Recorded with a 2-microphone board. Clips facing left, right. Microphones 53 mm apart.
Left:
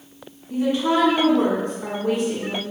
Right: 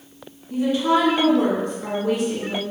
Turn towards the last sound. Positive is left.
turn(degrees=40)  # may be behind; listen again after turning